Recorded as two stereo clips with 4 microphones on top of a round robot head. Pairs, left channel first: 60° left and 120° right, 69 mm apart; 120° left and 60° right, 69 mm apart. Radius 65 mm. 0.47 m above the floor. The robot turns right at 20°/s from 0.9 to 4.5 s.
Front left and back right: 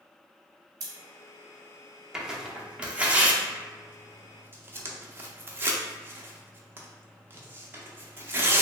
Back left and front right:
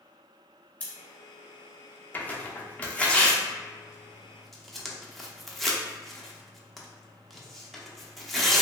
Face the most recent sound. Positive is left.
turn(degrees=-150)